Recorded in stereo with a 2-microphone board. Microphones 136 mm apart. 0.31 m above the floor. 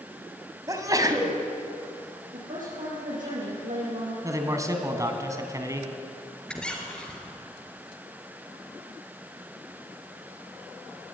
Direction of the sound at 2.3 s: 75° right (ahead or behind).